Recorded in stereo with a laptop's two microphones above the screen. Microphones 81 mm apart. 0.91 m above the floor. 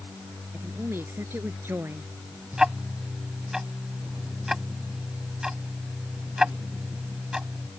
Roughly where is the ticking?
Centre.